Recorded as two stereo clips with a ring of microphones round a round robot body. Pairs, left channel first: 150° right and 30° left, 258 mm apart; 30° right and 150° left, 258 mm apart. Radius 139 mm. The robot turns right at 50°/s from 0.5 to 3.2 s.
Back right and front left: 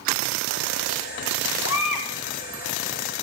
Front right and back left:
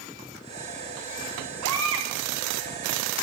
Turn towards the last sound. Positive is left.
turn(degrees=-105)